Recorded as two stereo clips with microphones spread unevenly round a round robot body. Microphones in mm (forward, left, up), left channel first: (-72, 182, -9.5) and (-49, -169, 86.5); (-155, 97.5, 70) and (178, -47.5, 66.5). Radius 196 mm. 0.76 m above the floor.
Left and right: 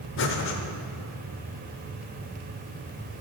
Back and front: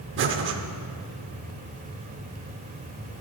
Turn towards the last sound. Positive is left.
turn(degrees=35)